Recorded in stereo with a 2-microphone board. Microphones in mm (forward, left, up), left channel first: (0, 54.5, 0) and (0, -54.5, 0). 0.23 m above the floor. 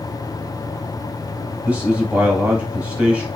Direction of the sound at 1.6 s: 10° right (ahead or behind).